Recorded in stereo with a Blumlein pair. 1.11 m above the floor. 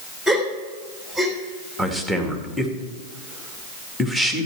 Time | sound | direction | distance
0.3 | a gasp | 5° left | 3 m
1.8 | a man speaking | 5° left | 2 m